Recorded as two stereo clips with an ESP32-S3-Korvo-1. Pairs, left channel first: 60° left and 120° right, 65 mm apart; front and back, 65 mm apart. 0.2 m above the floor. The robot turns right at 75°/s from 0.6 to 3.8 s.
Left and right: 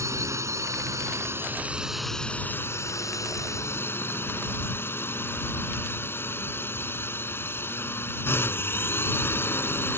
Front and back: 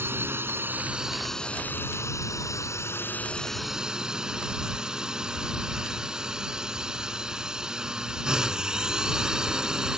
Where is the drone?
135° right; by 10.0 s 105° left.